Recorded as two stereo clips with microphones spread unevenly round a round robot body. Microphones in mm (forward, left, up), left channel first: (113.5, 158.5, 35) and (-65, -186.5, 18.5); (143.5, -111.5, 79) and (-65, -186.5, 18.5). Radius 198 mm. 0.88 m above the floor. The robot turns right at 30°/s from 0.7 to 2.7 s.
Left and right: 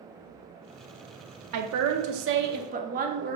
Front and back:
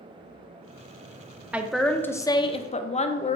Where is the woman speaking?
90° right, 0.6 m; by 3.4 s 55° right, 0.6 m.